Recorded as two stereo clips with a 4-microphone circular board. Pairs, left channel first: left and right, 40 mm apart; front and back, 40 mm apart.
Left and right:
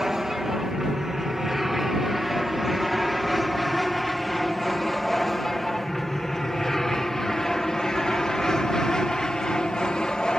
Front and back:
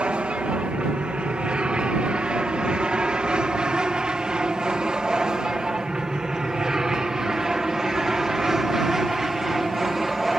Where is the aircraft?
165° right; by 10.4 s 105° left.